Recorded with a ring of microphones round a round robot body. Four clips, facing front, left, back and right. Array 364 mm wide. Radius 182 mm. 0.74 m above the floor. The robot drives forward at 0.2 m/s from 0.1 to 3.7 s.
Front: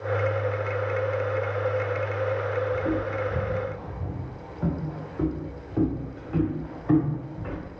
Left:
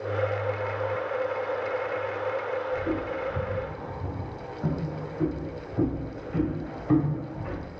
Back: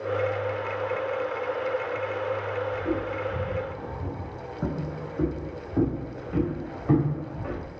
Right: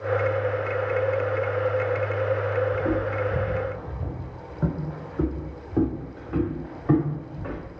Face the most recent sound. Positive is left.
turn(degrees=-125)